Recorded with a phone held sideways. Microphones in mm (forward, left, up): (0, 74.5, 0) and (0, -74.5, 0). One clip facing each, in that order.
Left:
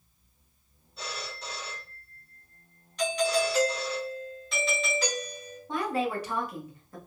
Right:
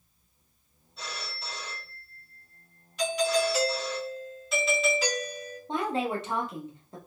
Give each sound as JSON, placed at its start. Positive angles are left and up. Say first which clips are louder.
{"t": 1.0, "sound": "a phone ringing", "louder": "left 2 dB", "side_deg": 0, "distance_m": 1.7}
{"t": 3.0, "sound": "a doorbell", "louder": "even", "side_deg": -5, "distance_m": 2.0}
{"t": 5.7, "sound": "a woman speaking", "louder": "even", "side_deg": -25, "distance_m": 1.0}